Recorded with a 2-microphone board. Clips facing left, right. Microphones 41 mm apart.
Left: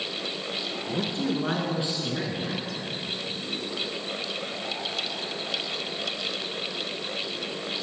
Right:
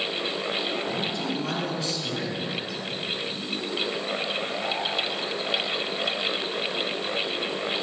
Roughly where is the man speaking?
Left.